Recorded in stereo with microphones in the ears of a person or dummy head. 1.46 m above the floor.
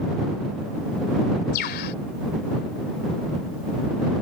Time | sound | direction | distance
1.5 | a bird | 55° left (ahead or behind) | ?